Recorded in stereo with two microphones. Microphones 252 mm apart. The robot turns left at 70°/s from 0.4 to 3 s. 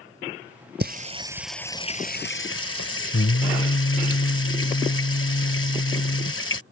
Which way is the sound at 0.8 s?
130° right.